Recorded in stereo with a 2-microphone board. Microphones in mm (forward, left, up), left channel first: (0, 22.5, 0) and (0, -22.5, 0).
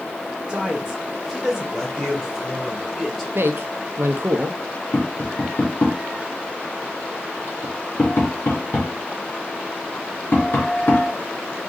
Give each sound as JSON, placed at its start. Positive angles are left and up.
{"t": 0.5, "sound": "a man speaking", "side_deg": -20, "distance_m": 1.0}
{"t": 3.4, "sound": "a man speaking", "side_deg": -65, "distance_m": 0.6}
{"t": 4.9, "sound": "tapping", "side_deg": 55, "distance_m": 2.5}